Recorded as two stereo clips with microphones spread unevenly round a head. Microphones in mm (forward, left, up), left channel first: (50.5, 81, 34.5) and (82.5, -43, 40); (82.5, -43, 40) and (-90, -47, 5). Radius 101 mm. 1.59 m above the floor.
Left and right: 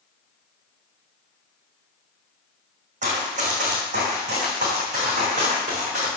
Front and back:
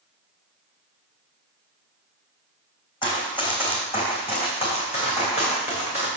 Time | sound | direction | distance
3.0 | running footsteps | 55° right | 3.5 m